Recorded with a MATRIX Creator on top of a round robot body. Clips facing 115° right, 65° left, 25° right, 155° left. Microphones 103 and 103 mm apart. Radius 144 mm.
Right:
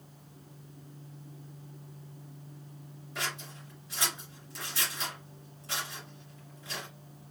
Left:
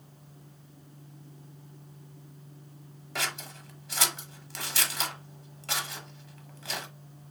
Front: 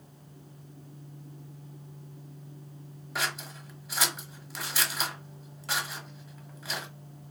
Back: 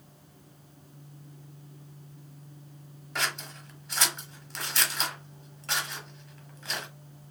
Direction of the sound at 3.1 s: 60° left.